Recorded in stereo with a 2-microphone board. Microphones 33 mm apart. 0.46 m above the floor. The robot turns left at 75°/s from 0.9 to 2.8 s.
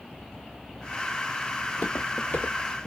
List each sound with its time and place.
1.6 s footsteps: 30° left (ahead or behind), 1.1 m; by 2.9 s 45° left (ahead or behind), 0.6 m